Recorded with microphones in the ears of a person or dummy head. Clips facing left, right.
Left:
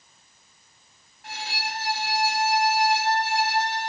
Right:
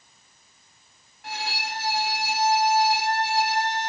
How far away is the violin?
About 2.0 m.